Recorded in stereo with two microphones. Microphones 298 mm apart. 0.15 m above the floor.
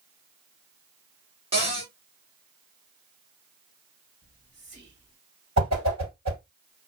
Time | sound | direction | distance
1.5 | a cupboard door | 20° right (ahead or behind) | 1.8 m
4.2 | whispering | 40° right (ahead or behind) | 2 m
5.6 | a whoosh | 60° right (ahead or behind) | 1.5 m